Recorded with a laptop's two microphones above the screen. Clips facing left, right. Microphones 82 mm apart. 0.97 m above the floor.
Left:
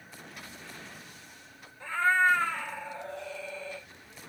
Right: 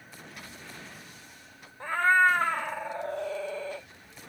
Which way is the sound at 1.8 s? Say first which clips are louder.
Right 3 dB; 50° right (ahead or behind).